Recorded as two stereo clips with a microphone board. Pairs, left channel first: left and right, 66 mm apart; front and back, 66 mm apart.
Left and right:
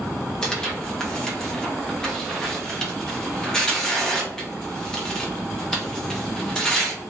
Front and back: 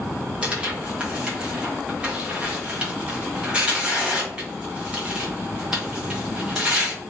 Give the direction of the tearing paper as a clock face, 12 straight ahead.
7 o'clock.